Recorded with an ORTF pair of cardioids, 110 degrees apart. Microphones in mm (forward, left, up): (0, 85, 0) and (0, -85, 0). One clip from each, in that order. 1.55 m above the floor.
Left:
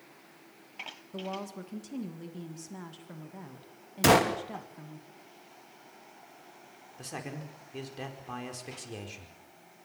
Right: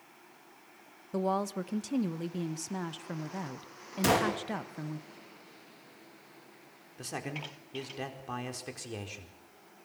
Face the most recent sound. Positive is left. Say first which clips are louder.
# right 2 dB
turn(degrees=-15)